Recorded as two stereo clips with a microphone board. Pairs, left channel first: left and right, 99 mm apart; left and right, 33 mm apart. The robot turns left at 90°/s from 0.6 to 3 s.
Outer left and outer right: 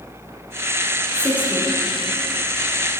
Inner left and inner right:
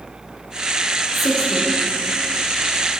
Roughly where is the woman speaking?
Behind.